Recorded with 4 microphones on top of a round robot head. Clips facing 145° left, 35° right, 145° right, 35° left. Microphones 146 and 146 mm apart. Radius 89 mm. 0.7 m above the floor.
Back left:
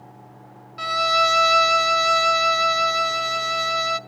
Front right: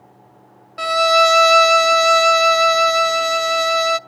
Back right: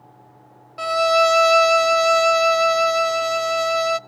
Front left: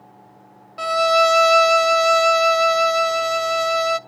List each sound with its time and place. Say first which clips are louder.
0.8 s a violin: front right 8 dB, even; 55° right, 0.5 m